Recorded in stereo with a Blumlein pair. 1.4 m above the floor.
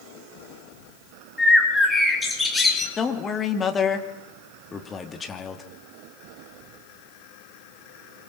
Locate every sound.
1.4 s a bird: 10° left, 4.5 m
3.0 s a man speaking: 15° left, 2.5 m